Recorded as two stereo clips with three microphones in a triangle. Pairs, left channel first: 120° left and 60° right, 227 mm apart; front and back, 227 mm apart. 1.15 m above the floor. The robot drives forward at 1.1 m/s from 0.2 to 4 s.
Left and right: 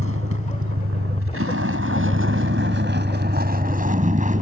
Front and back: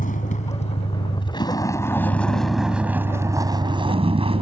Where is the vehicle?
55° right; by 4.4 s 115° right.